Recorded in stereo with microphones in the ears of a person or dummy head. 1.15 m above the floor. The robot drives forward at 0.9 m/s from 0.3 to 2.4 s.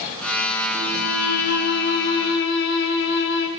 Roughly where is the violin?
Left.